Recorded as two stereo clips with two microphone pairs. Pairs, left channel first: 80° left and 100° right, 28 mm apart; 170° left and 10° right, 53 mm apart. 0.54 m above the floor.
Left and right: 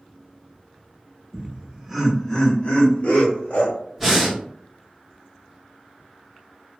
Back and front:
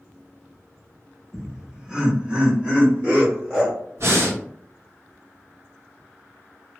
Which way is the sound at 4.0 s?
15° right.